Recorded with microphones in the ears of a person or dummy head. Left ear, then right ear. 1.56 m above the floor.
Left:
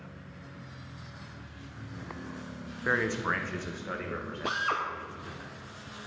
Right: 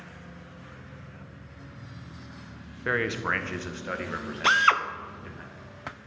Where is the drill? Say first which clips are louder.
Right 10 dB; 65° right (ahead or behind), 0.6 m.